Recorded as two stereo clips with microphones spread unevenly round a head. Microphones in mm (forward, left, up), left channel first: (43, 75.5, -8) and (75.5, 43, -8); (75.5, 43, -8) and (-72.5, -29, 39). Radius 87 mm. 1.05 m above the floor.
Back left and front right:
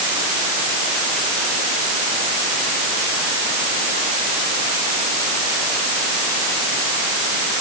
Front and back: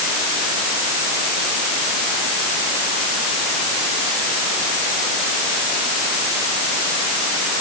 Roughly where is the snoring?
No snoring in this recording.